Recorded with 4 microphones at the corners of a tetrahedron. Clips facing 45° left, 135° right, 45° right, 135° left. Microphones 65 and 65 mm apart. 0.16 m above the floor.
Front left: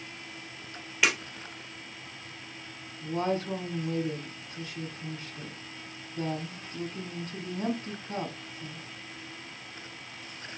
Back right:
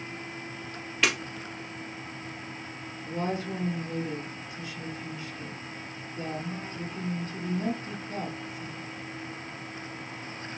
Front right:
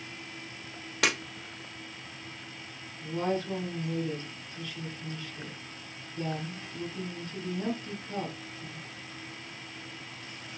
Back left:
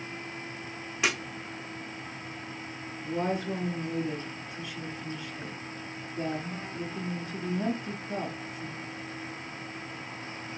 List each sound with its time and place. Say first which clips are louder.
1.0 s breaking glass: even, front right 1 dB; 35° right, 2.5 m
3.0 s a woman speaking: front left 2 dB, even; 60° left, 1.6 m